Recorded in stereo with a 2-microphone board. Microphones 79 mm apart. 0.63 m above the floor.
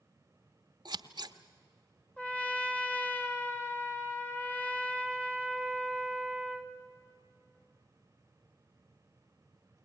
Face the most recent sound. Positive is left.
turn(degrees=15)  # may be behind; listen again after turning